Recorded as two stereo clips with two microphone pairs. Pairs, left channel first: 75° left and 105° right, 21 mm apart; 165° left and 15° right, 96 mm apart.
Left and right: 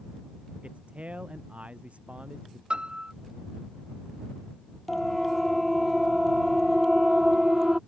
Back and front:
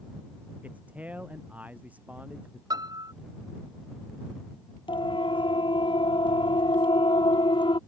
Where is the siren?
155° left; by 7.8 s 170° right.